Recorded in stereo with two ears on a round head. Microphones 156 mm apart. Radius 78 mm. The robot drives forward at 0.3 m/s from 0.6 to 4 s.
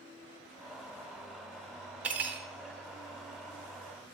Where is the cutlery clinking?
10° right (ahead or behind), 0.7 m.